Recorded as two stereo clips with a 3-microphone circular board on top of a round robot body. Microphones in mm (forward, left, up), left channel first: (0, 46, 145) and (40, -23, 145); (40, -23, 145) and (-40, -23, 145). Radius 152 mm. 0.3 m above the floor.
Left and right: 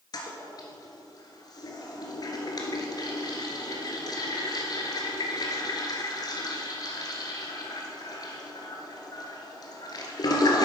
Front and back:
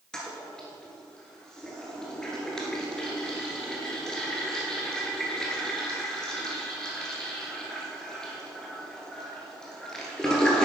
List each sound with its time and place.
0.1 s a toilet flushing: 85° left, 1.6 m